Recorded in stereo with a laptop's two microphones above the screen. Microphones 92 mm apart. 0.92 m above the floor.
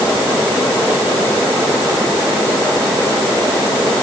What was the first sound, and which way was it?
Only background noise.